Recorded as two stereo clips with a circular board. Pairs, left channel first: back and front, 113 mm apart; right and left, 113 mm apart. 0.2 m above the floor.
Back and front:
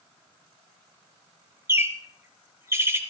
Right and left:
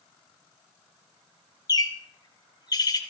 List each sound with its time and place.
1.7 s a bird: 55° right, 1.6 m